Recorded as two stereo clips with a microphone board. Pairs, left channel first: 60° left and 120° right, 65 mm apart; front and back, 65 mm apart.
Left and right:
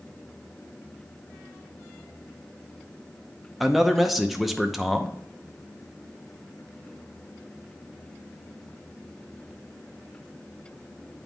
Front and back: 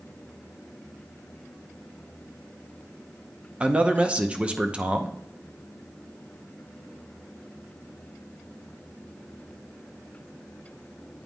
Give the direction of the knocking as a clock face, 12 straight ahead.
I don't hear knocking.